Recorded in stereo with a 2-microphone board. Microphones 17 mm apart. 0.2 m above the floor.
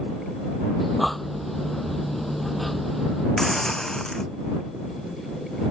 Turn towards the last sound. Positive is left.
turn(degrees=20)  # may be behind; listen again after turning